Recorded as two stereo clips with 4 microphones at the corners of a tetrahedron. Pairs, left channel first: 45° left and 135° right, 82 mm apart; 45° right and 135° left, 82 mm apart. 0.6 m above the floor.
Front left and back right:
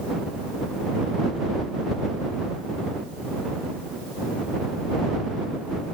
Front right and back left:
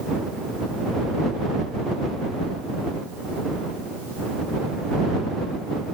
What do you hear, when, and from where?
Only background noise.